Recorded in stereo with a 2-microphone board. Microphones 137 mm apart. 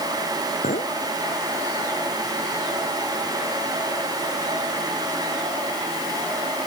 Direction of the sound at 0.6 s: 90° left.